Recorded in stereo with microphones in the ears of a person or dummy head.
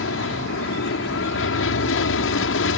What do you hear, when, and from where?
0.0 s an aircraft: 65° left (ahead or behind)